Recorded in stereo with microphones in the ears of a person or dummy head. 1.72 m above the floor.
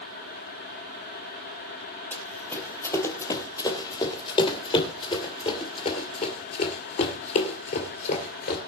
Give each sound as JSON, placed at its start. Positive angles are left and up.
{"t": 2.1, "sound": "running footsteps", "side_deg": 15, "distance_m": 3.5}